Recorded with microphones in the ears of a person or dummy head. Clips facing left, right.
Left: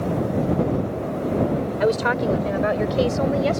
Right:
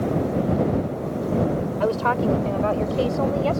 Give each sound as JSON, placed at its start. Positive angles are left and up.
{"t": 1.8, "sound": "a woman speaking", "side_deg": 25}